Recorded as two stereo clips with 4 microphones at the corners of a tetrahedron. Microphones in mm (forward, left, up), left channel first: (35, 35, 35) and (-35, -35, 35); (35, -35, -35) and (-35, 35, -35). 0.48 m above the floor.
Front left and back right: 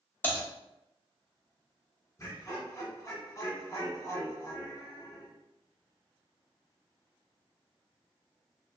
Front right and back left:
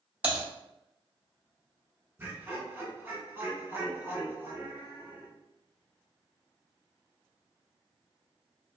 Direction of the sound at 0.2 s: 80° left.